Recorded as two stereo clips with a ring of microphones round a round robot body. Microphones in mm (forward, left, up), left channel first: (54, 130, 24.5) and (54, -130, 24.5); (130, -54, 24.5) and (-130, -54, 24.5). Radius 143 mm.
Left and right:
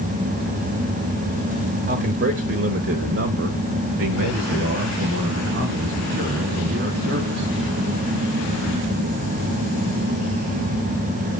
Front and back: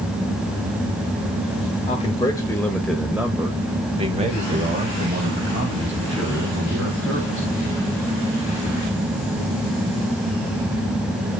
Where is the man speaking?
60° right, 1.3 m; by 7.5 s 145° right, 3 m.